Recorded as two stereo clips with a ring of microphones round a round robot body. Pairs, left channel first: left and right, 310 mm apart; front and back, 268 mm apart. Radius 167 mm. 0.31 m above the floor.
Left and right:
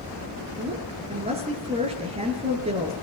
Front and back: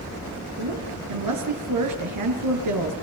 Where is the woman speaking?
160° right, 5 m.